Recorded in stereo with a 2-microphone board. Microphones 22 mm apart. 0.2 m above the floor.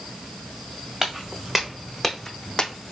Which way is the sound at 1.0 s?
15° right (ahead or behind).